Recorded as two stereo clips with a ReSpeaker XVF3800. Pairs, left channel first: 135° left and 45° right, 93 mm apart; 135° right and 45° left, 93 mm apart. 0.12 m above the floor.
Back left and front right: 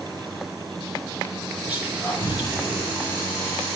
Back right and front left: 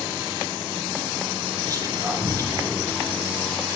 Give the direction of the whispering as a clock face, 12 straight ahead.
11 o'clock.